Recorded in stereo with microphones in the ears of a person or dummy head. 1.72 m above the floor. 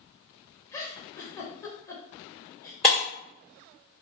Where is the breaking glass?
Centre (ahead or behind), 1.9 m.